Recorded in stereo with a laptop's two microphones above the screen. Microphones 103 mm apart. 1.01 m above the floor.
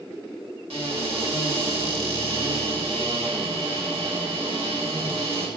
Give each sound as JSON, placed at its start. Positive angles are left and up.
{"t": 0.7, "sound": "a cupboard door", "side_deg": -80, "distance_m": 1.8}